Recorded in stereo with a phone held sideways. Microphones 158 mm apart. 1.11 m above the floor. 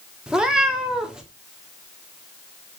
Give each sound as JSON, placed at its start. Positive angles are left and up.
{"t": 0.3, "sound": "a cat meowing", "side_deg": -5, "distance_m": 0.7}